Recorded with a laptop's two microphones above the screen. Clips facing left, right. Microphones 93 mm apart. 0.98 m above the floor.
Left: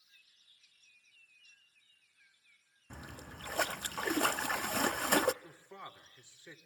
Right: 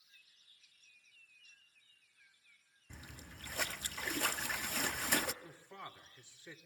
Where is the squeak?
No squeak in this recording.